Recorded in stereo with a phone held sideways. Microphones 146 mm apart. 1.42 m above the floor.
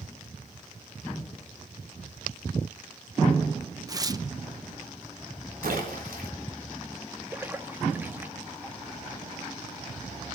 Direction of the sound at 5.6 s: 90° right.